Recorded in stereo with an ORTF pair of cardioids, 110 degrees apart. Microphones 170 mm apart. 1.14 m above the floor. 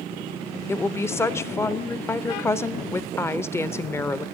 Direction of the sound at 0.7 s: 15° left.